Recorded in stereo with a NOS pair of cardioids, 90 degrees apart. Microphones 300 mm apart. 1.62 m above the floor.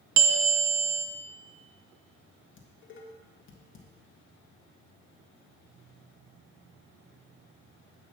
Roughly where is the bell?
Ahead right.